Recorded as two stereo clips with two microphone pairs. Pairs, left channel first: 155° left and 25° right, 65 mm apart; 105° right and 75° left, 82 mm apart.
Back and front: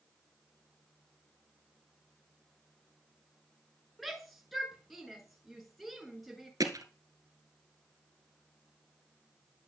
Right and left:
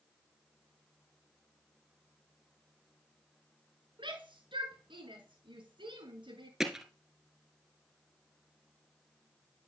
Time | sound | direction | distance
4.0 | a shout | 65° left | 5.5 m
6.6 | hammering | 10° right | 2.0 m